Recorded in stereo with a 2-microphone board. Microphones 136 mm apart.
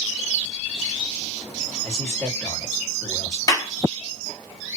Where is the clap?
30° left (ahead or behind), 1.0 m.